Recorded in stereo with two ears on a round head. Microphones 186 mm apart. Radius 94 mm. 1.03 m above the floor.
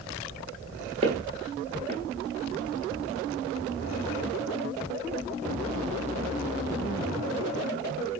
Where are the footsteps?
30° right (ahead or behind), 1.2 m.